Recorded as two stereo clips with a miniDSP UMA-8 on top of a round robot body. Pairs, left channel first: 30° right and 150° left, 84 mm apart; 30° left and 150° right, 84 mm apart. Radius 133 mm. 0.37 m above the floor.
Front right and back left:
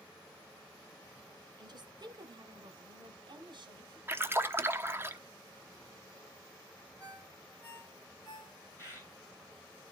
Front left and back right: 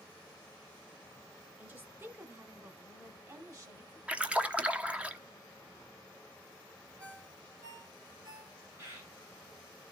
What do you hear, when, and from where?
1.6 s a woman speaking: 150° left, 2 m; by 4.0 s 165° left, 3 m
4.1 s a splash: 150° left, 1.2 m
7.0 s a ringtone: 100° right, 8.5 m
8.8 s a bird: 90° right, 7 m